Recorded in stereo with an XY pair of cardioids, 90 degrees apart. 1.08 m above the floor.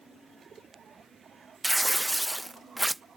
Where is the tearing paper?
20° right.